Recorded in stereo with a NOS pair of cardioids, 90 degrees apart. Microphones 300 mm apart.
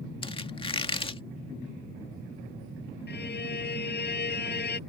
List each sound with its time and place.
0.2 s a squeak: 20° left
3.1 s a violin: 35° left